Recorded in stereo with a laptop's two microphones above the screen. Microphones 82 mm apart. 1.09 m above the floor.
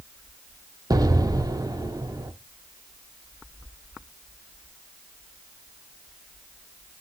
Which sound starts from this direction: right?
An explosion, at 0.9 s.